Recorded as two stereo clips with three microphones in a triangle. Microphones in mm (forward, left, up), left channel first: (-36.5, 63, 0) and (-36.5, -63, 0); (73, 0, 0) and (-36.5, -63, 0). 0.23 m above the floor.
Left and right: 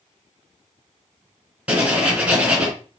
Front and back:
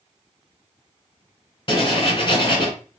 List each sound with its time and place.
1.7 s writing: 10° right, 1.3 m